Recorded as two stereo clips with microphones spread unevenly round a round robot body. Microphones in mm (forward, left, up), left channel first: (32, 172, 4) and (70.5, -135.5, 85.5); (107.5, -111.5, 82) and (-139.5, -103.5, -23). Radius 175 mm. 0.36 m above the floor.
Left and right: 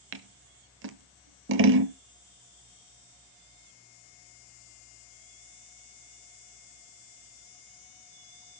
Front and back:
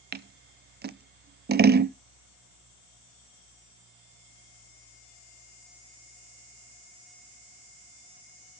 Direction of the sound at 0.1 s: 145° right.